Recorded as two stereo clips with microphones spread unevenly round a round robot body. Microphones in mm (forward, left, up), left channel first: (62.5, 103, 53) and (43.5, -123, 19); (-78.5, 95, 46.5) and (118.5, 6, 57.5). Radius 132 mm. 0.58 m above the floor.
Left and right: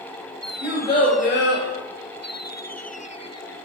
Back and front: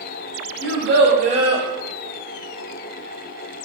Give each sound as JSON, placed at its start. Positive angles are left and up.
{"t": 0.6, "sound": "a child speaking", "azimuth_deg": 0, "distance_m": 1.2}